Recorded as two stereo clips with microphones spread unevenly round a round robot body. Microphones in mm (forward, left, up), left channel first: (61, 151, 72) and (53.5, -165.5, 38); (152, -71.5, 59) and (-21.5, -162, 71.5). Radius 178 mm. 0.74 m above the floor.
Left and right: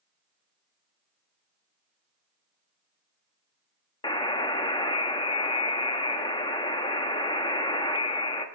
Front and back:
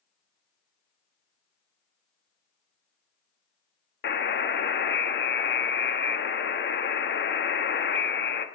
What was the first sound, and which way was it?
A buzzer, 10° left.